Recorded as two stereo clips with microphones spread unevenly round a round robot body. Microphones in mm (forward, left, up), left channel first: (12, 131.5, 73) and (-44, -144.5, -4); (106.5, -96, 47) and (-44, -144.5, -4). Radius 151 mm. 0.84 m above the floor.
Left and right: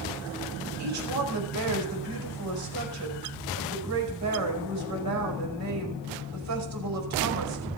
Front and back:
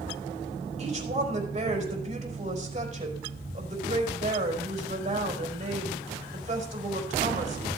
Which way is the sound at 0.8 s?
120° right.